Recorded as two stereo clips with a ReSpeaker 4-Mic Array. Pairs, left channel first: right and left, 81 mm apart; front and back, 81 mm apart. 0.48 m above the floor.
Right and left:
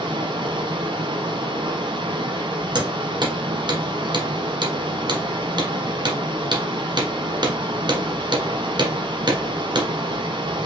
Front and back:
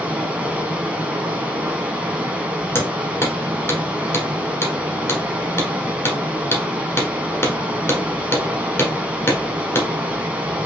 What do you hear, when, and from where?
0.0 s running water: 105° left, 1.1 m
2.8 s hammering: 60° left, 1.5 m